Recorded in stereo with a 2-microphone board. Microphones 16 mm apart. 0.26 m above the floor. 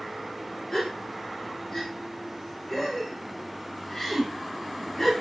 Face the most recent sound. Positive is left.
turn(degrees=15)  # may be behind; listen again after turning